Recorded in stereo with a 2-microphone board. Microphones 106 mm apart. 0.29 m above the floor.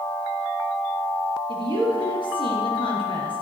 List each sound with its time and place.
1.5 s a woman speaking: 50° left (ahead or behind), 5.5 m